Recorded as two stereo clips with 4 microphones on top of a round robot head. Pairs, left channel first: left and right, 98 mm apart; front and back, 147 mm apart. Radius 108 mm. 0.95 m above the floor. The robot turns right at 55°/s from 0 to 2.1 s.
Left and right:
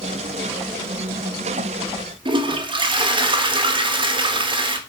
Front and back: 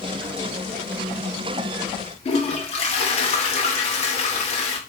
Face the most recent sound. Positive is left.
turn(degrees=-55)